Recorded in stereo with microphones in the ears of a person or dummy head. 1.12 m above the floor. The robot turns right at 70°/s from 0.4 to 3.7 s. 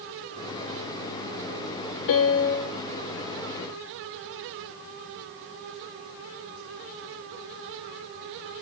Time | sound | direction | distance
2.1 | a piano | 75° left | 0.7 m